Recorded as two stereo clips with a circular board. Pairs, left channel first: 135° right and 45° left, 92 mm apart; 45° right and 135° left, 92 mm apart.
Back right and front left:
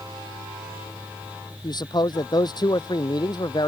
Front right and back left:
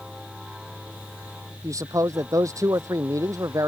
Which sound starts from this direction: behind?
A man speaking, at 1.6 s.